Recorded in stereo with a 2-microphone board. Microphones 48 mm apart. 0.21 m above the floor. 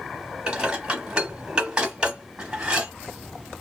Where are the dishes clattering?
20° right (ahead or behind), 0.9 m.